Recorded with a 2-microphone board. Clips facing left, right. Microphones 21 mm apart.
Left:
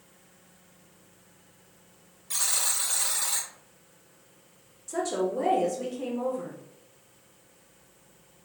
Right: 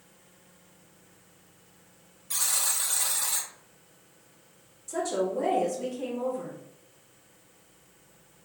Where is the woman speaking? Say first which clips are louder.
Even; 15° left (ahead or behind), 0.9 m.